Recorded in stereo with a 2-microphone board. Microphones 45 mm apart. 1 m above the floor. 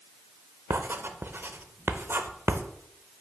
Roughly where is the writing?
Right.